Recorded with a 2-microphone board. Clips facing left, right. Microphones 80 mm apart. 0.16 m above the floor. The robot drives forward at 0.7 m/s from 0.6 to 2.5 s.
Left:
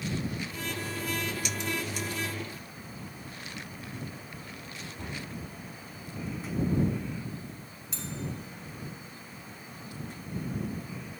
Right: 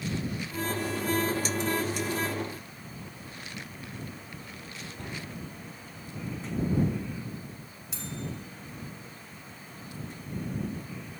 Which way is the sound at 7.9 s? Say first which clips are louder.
Even; 5° right (ahead or behind).